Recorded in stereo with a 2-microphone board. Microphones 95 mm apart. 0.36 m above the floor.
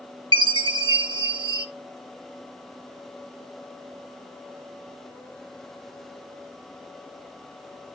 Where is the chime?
55° right (ahead or behind), 0.8 m.